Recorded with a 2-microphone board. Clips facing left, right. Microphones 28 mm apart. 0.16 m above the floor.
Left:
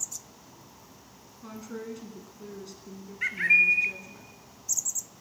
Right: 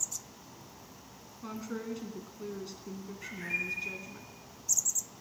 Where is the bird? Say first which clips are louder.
Left 15 dB; 70° left (ahead or behind), 0.7 m.